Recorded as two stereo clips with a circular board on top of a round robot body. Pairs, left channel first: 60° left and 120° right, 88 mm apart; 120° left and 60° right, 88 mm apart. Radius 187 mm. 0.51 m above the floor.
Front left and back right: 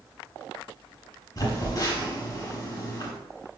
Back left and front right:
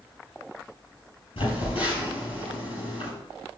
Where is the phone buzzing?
105° left, 7 m.